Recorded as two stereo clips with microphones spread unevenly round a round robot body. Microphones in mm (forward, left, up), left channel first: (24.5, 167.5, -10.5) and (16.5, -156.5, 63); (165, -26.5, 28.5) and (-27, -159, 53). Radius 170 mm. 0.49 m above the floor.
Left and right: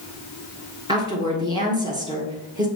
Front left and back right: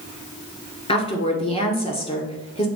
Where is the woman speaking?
5° right, 1.6 m.